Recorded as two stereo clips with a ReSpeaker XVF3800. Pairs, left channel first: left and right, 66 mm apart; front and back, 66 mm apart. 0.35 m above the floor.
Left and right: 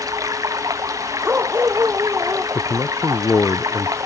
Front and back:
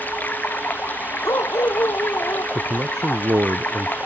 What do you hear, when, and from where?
0.0 s running water: 65° right
1.2 s a dog barking: 35° right
2.5 s a man speaking: 135° left